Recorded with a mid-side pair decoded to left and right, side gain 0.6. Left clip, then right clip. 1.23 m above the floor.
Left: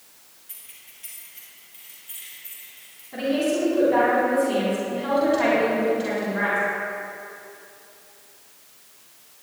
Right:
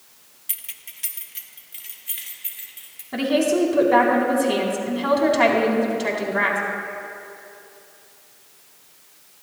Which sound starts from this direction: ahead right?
A woman speaking, at 3.1 s.